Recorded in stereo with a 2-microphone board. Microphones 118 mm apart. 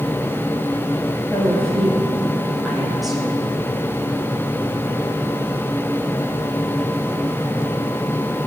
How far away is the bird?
I don't hear a bird.